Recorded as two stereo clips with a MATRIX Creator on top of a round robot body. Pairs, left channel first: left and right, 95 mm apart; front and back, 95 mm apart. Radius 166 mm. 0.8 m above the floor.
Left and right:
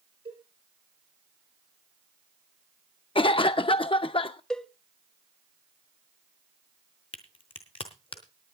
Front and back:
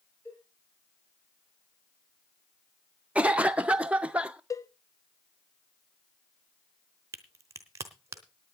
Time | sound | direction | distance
0.2 | a cowbell | 65° right | 6.5 m
3.1 | a cough | 105° left | 0.5 m
4.5 | a cowbell | 15° left | 1.2 m
7.1 | a crack | 125° left | 0.5 m